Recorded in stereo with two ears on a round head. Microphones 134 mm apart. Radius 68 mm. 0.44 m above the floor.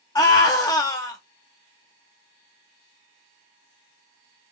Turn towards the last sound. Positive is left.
turn(degrees=25)  # may be behind; listen again after turning